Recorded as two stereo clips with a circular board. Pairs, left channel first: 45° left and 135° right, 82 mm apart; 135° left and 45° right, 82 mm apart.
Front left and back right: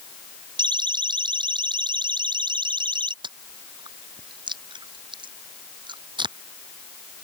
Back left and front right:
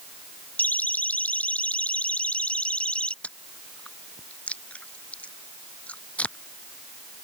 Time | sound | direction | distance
0.6 | a siren | 155° right | ?
3.2 | chewing | 150° right | ?